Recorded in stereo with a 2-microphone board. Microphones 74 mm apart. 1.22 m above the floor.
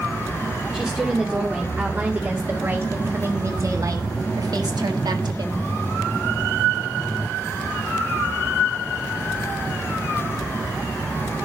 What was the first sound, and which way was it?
A woman speaking, 10° right (ahead or behind).